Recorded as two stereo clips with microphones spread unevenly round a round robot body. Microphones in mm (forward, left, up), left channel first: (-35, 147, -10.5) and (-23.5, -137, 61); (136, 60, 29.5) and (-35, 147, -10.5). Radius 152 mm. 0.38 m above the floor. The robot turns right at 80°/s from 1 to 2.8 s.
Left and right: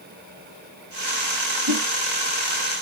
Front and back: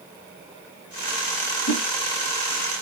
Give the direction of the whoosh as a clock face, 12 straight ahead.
2 o'clock.